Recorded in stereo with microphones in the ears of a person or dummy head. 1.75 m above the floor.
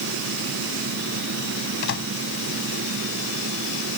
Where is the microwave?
65° left (ahead or behind).